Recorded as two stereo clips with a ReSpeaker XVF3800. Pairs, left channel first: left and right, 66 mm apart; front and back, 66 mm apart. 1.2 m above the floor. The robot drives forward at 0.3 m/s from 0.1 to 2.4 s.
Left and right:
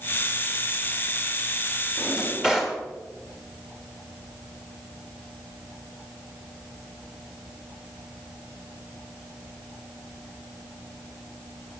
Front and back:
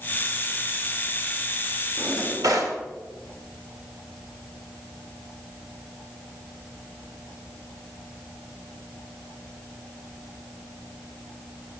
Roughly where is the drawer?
Behind.